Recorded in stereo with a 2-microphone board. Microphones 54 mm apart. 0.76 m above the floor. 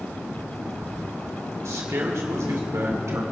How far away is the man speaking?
About 2.5 m.